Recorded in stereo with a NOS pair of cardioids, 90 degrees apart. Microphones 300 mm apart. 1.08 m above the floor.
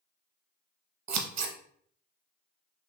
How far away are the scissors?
About 0.9 m.